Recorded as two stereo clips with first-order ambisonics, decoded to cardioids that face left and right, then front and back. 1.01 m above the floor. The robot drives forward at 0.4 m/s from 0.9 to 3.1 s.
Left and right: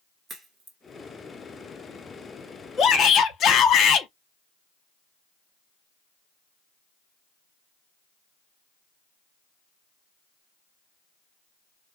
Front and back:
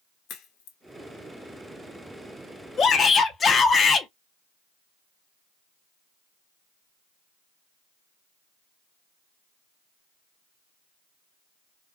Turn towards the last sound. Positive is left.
turn(degrees=60)